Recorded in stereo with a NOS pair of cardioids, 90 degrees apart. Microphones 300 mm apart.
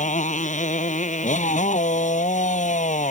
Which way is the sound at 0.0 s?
25° left.